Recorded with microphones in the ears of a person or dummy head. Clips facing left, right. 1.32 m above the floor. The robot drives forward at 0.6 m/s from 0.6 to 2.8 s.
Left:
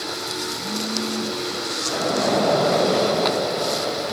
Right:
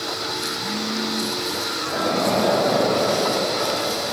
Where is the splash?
5° left (ahead or behind), 1.0 m.